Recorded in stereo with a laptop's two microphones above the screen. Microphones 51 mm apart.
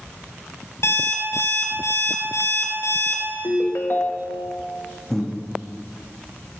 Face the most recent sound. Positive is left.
turn(degrees=0)  # may be behind; listen again after turning